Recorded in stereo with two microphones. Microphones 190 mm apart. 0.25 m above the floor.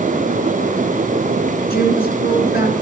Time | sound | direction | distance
1.7 | a woman speaking | 55° left (ahead or behind) | 2.5 m